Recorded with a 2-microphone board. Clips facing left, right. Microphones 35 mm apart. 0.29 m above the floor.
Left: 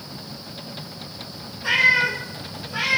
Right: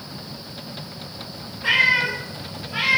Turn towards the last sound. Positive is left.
turn(degrees=-30)  # may be behind; listen again after turning